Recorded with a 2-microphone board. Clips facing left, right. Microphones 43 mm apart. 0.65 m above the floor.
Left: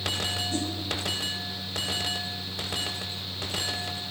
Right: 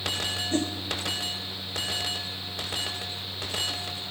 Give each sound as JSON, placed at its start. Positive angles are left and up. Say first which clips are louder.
{"t": 0.5, "sound": "a whoosh", "louder": "right 3 dB", "side_deg": -50, "distance_m": 1.7}